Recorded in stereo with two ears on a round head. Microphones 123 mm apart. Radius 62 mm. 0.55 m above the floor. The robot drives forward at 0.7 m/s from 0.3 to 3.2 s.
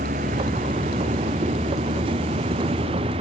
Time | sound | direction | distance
0.0 | a vehicle | 55° right (ahead or behind) | ?